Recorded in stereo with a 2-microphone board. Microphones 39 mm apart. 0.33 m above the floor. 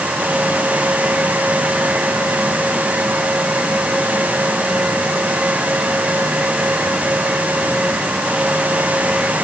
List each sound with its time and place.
Only background noise.